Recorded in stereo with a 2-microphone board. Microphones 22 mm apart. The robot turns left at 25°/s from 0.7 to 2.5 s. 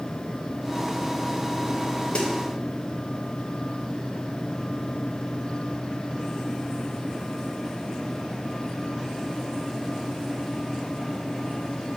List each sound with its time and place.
2.1 s a snare drum: 55° left (ahead or behind), 0.6 m; by 2.3 s 60° left (ahead or behind), 0.6 m